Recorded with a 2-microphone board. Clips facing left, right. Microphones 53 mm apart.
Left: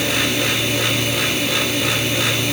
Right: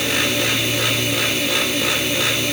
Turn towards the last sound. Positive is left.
No sound to turn to.